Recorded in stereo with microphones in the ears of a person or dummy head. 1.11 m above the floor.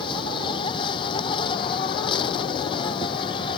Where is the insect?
30° left (ahead or behind).